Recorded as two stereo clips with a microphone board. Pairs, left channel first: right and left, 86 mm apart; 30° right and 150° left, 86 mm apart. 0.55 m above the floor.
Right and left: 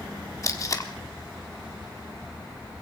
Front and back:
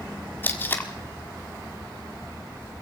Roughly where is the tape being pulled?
Right.